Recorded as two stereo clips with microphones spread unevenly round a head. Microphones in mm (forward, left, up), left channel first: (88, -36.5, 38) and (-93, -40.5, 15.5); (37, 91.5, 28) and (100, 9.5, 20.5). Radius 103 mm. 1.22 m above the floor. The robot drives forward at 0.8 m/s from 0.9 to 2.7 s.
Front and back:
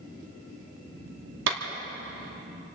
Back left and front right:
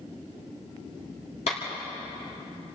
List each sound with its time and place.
1.5 s a clap: straight behind, 2.5 m